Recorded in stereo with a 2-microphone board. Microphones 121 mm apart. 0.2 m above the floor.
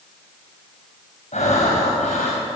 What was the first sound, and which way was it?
Breathing, 75° left (ahead or behind).